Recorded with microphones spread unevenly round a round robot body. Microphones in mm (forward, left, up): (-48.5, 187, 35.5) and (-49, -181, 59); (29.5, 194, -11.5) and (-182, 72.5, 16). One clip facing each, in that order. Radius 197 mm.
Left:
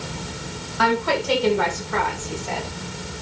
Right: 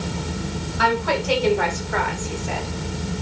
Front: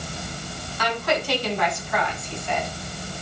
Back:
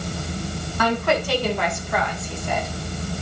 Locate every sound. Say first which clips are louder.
0.8 s a woman speaking: left 1 dB, back 4 dB; straight behind, 6.5 m; by 2.7 s 170° left, 5.5 m